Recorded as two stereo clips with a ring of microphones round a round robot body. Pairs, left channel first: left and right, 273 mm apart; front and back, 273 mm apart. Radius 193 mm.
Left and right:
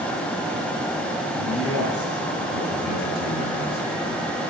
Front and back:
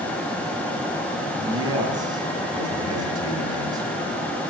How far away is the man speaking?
About 2.5 m.